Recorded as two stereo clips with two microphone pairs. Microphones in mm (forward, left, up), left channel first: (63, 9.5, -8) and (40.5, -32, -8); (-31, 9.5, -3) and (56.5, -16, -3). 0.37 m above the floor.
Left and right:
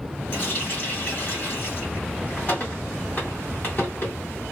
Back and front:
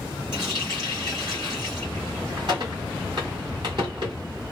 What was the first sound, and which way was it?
A running tap, 15° left.